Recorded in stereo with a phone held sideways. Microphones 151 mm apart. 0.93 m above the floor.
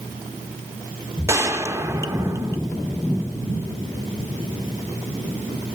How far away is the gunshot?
About 0.6 m.